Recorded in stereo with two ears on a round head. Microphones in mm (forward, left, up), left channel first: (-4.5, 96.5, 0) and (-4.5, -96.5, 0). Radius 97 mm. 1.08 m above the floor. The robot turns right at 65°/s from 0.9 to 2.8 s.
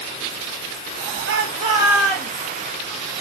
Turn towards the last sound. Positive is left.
turn(degrees=50)